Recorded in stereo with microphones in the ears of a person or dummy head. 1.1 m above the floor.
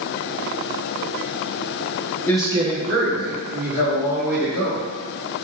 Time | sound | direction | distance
2.3 | a man speaking | 10° left (ahead or behind) | 0.5 m